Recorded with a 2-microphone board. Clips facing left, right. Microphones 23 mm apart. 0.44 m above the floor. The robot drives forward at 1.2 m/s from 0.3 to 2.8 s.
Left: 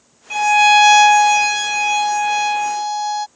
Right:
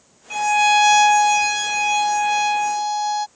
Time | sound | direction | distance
0.3 | a violin | 20° left (ahead or behind) | ?